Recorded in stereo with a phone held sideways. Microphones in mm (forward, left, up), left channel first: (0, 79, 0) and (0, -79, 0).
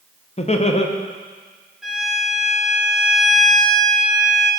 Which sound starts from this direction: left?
Laughter, at 0.4 s.